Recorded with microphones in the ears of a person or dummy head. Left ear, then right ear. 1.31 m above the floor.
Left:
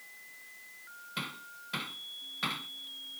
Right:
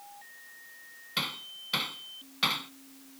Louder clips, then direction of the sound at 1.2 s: Right 7 dB; 30° right (ahead or behind).